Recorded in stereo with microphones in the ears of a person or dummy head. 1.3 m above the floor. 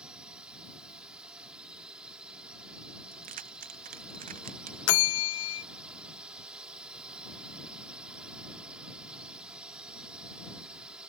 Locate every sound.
0.0 s a drone: 5° right (ahead or behind)
3.1 s keys jangling: 45° right (ahead or behind)
4.9 s a bell: 80° left